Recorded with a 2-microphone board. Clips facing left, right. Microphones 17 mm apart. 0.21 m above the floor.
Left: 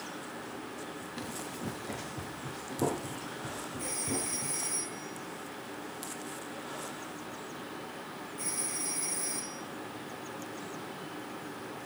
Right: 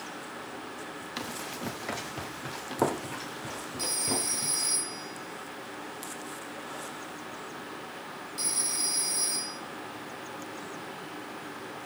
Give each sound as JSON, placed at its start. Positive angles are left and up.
{"t": 1.2, "sound": "running footsteps", "side_deg": -65, "distance_m": 3.5}
{"t": 3.8, "sound": "a phone ringing", "side_deg": -80, "distance_m": 4.5}